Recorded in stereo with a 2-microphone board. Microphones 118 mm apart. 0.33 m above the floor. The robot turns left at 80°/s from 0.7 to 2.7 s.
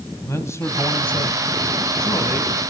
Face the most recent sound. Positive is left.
turn(degrees=-10)